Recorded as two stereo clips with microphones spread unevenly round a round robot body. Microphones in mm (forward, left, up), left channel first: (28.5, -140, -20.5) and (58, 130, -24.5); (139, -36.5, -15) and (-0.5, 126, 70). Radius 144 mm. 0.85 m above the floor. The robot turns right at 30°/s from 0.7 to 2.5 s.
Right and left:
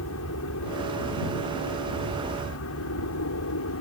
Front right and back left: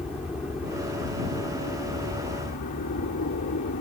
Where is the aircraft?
125° right; by 3.8 s 75° right.